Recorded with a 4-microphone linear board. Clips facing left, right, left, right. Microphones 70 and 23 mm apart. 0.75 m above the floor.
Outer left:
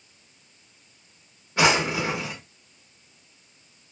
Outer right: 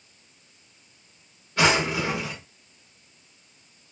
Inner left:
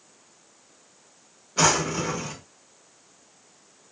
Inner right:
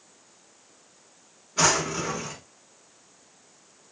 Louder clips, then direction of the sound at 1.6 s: Outer left 1 dB, inner left 1 dB; 20° left (ahead or behind).